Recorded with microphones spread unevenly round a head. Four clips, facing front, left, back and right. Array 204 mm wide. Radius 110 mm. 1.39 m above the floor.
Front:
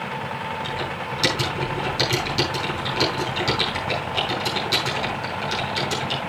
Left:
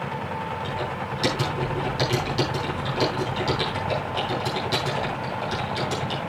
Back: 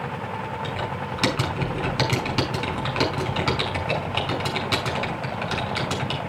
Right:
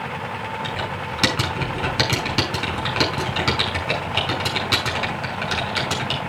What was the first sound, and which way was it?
Typing on a keyboard, 105° right.